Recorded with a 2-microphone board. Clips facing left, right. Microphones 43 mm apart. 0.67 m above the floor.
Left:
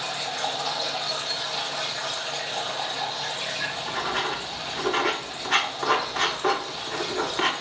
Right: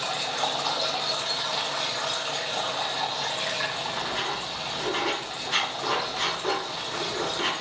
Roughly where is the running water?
Right.